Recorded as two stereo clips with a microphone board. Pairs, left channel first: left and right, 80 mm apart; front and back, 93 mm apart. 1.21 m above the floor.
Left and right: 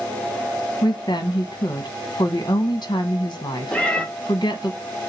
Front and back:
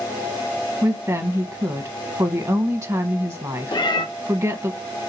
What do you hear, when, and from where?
0.8 s a woman speaking: 125° left, 0.9 m
3.7 s a cat meowing: 15° left, 0.7 m